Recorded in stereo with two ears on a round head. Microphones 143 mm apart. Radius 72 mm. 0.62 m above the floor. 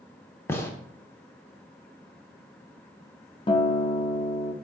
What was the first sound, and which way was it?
A gunshot, 15° left (ahead or behind).